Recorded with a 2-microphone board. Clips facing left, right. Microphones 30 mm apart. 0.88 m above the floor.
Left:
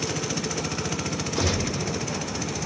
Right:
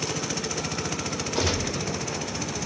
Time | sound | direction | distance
1.4 | a gunshot | 45° right (ahead or behind) | 1.6 m